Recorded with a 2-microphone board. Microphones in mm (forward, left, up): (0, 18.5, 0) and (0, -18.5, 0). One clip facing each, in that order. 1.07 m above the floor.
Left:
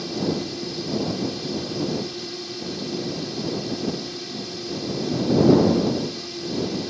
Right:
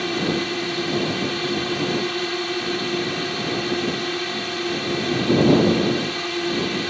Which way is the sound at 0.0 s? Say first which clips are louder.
Right 3 dB; 60° right (ahead or behind).